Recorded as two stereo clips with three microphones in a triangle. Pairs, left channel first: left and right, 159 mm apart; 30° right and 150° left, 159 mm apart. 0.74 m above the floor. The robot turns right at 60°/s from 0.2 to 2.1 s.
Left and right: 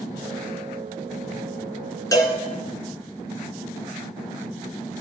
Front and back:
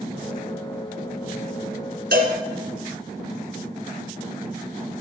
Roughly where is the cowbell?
Behind.